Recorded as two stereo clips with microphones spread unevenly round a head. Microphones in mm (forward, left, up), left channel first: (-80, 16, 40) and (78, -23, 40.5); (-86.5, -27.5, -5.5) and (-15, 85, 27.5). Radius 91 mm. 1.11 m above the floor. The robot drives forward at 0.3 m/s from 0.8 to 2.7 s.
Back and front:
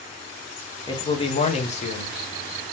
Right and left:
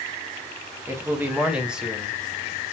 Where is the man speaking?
135° left, 0.7 m; by 2.7 s 165° left, 1.0 m.